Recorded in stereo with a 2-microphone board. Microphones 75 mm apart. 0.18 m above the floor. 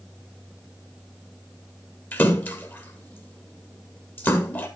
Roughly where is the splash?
Left.